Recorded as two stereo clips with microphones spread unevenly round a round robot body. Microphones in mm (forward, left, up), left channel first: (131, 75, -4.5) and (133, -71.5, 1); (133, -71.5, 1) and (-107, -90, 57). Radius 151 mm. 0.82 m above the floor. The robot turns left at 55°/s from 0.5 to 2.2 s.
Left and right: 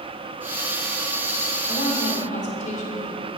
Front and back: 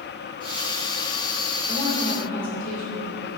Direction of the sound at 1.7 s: 90° left.